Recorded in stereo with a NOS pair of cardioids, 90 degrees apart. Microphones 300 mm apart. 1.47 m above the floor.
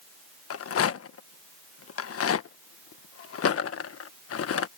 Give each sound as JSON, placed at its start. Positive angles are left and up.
{"t": 0.5, "sound": "a rattle", "azimuth_deg": 50}